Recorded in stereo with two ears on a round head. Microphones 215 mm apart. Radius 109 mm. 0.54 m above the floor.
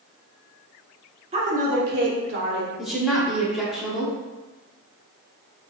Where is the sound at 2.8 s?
Centre (ahead or behind), 1.1 m.